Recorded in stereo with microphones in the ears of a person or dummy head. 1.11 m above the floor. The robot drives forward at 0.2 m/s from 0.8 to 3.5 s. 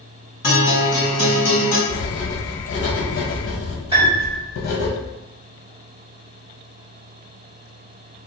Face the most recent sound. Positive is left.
turn(degrees=-20)  # may be behind; listen again after turning